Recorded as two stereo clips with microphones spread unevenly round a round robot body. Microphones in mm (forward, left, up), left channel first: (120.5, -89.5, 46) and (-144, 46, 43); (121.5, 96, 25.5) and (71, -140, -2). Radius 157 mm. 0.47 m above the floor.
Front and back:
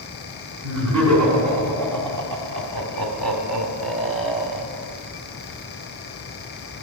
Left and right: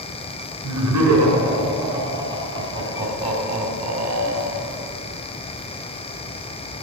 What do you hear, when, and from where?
0.6 s laughter: 175° left, 4 m; by 4.7 s 155° right, 2 m